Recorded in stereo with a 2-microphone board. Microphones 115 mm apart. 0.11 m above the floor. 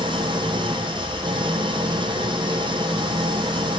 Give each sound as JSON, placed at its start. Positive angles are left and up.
{"t": 0.0, "sound": "an engine running", "side_deg": -45, "distance_m": 2.5}